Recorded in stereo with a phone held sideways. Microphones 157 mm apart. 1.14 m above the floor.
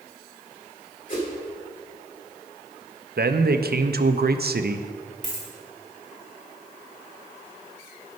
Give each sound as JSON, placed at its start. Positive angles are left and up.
{"t": 1.1, "sound": "a whoosh", "side_deg": 55, "distance_m": 3.0}
{"t": 3.2, "sound": "a man speaking", "side_deg": -80, "distance_m": 0.5}
{"t": 5.2, "sound": "a dropped coin", "side_deg": 55, "distance_m": 2.5}